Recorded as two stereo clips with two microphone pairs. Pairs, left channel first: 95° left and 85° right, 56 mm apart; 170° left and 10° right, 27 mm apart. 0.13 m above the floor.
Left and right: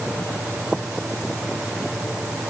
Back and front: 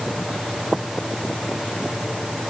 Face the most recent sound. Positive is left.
No sound to turn to.